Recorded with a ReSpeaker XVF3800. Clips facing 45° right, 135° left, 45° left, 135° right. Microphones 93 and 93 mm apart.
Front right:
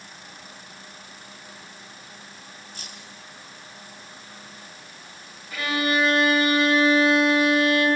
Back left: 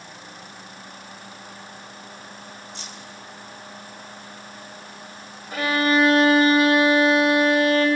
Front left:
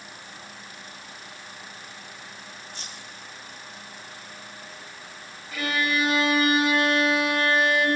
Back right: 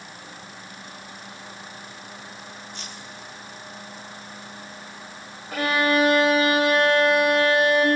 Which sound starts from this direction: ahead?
Keys jangling, at 2.8 s.